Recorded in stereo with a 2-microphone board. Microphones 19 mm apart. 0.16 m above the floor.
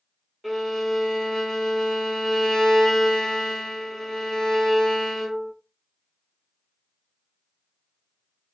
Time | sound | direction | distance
0.4 | a violin | 10° left (ahead or behind) | 0.9 m